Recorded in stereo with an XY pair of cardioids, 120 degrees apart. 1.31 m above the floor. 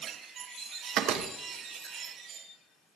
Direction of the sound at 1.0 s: 70° right.